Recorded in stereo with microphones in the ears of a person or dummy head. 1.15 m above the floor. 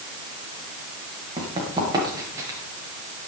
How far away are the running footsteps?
About 6 m.